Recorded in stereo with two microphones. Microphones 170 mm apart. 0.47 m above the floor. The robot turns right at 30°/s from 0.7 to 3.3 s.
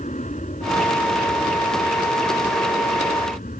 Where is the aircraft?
50° left; by 3.6 s 125° left.